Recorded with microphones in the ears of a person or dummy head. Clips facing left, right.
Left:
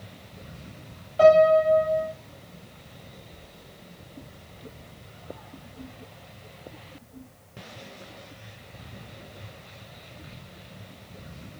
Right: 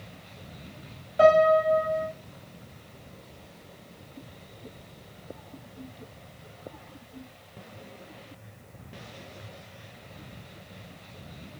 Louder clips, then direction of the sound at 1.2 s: Left 3 dB; 20° right (ahead or behind).